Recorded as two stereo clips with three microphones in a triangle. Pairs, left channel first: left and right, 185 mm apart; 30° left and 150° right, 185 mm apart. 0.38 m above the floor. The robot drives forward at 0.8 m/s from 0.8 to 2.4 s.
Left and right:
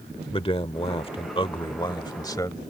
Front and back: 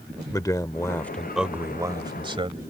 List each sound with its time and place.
0.3 s a man speaking: 80° left; by 2.6 s 155° left